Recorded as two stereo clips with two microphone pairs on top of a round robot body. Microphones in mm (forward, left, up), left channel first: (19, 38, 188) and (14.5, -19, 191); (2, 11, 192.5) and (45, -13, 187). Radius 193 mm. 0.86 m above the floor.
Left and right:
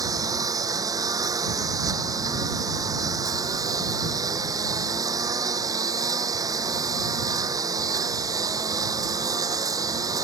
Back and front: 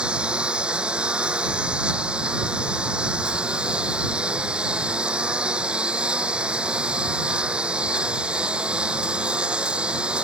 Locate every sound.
0.0 s a lawn mower: 95° right